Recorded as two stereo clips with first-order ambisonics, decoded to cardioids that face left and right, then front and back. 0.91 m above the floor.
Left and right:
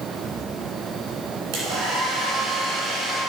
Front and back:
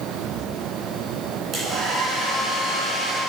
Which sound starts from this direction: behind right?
A hair dryer, at 1.5 s.